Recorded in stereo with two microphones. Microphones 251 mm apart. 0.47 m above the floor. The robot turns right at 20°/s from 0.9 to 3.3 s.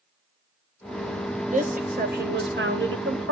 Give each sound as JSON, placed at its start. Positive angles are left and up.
{"t": 1.5, "sound": "a woman speaking", "azimuth_deg": -150, "distance_m": 2.5}